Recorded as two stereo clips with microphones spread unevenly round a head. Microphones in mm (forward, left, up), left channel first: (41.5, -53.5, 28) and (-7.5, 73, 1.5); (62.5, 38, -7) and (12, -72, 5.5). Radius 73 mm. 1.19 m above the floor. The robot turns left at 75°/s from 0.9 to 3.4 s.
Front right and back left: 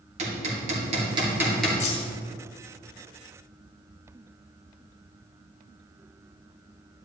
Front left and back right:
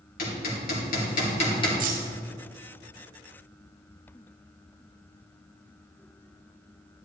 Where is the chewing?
No chewing in this recording.